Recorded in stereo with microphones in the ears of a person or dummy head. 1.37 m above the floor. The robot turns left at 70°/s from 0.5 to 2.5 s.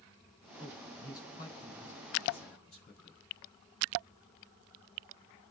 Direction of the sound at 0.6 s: 105° right.